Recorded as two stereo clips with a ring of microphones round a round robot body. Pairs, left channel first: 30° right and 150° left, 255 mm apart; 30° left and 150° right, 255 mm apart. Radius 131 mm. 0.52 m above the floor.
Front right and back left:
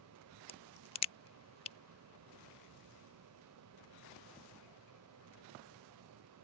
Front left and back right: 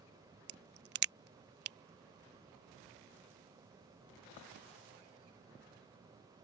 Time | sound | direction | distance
0.5 | a crack | 100° right | ?